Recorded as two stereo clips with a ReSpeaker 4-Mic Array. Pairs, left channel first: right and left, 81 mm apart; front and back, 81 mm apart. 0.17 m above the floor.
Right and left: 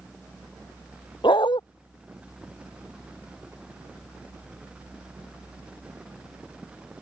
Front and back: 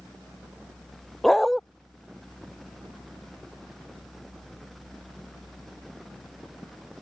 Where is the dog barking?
90° right.